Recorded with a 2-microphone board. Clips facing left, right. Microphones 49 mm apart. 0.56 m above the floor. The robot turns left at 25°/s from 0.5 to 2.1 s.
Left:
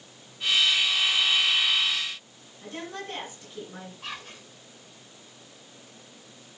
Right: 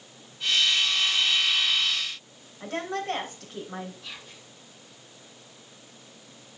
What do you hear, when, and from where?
2.6 s a woman speaking: 70° right (ahead or behind), 3 m
4.0 s whispering: 60° left (ahead or behind), 2.0 m